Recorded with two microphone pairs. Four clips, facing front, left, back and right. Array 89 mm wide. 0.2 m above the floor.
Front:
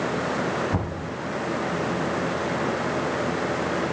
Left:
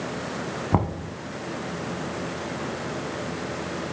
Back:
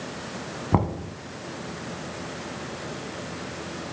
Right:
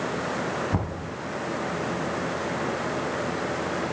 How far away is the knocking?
About 0.9 m.